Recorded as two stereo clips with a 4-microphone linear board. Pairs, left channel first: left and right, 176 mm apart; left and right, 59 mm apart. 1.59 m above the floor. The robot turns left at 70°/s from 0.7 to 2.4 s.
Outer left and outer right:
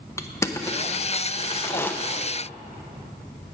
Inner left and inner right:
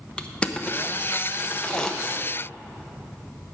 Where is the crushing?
15° left (ahead or behind), 0.6 m; by 1.9 s 10° left (ahead or behind), 0.6 m.